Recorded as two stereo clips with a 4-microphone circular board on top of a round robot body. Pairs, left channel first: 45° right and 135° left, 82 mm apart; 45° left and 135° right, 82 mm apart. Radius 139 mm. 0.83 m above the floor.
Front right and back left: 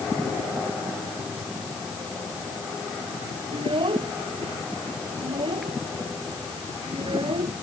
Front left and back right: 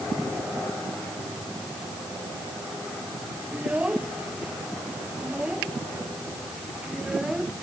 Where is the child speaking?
150° left; by 7.5 s 140° left.